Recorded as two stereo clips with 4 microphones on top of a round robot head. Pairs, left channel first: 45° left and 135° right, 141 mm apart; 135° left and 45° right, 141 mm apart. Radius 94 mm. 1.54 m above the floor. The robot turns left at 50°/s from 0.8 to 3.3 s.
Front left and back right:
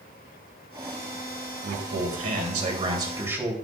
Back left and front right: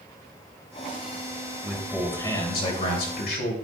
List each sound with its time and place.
1.6 s a man speaking: 125° right, 3 m; by 3.5 s 150° left, 3 m